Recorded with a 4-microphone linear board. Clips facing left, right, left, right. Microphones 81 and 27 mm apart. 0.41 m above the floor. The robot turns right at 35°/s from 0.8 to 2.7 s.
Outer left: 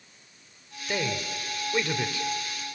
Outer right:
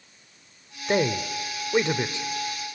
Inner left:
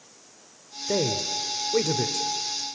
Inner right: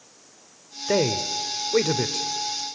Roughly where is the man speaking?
Right.